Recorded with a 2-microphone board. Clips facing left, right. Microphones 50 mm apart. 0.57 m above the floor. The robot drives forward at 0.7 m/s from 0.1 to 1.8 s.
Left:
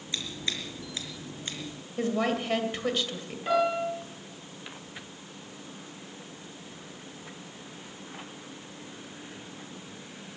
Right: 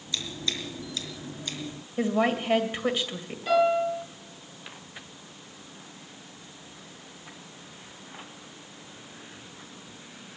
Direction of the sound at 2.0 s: 15° right (ahead or behind).